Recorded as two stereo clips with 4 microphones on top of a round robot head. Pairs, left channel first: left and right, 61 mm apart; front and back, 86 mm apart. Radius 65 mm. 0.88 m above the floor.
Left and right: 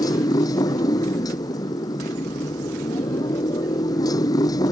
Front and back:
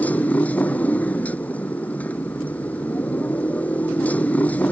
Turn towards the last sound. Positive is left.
turn(degrees=75)